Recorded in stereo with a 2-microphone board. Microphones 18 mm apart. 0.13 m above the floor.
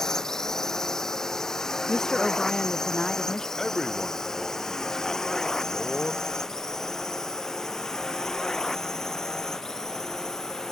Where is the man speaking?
30° left (ahead or behind).